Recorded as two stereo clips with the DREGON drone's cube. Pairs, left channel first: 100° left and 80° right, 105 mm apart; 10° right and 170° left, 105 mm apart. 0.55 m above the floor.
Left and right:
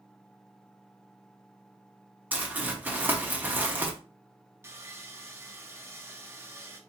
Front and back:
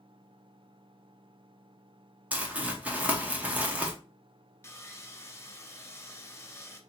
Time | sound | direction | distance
2.3 | crumpling | 130° right | 1.0 m
4.6 | sawing | 45° right | 0.7 m